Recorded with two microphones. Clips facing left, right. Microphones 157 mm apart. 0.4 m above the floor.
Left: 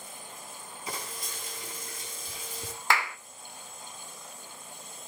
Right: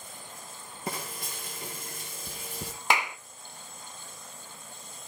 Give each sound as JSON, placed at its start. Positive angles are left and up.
{"t": 0.9, "sound": "frying", "side_deg": -60, "distance_m": 4.5}
{"t": 2.9, "sound": "a clap", "side_deg": -20, "distance_m": 0.6}